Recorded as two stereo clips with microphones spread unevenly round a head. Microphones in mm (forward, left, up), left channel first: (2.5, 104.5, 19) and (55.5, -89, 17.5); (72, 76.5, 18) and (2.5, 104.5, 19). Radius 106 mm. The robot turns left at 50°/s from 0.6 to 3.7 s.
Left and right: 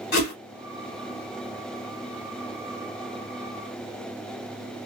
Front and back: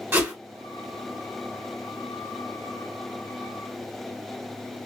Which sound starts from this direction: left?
A whoosh, at 0.1 s.